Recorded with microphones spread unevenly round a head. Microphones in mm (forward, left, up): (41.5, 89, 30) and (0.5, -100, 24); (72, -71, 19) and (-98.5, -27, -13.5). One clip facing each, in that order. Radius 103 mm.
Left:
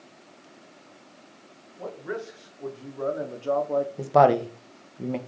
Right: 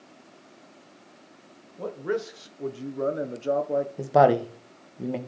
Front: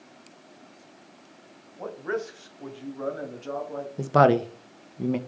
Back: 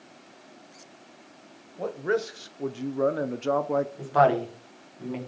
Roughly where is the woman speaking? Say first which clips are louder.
Even, front 5 dB; ahead.